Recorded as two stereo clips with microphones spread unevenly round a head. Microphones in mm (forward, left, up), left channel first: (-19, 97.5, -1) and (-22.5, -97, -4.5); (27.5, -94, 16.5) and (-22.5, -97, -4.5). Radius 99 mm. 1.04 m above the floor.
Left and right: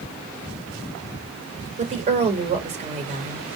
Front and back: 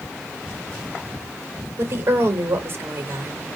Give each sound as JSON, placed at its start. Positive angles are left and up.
{"t": 1.8, "sound": "a woman speaking", "azimuth_deg": -145, "distance_m": 4.0}